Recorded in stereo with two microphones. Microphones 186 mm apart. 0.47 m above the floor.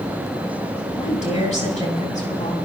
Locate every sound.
1.0 s a woman speaking: 40° left (ahead or behind), 7.5 m